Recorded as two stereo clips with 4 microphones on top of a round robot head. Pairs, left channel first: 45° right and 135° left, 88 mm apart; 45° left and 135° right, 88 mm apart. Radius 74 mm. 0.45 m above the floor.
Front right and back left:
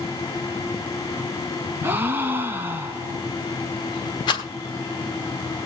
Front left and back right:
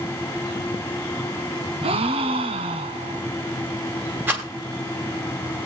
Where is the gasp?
155° right, 1.0 m.